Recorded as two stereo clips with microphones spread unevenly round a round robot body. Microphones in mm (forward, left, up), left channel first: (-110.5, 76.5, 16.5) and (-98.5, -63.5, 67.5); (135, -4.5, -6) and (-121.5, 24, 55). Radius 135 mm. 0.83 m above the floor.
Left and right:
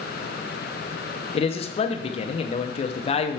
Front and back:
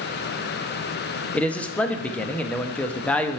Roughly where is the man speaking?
Left.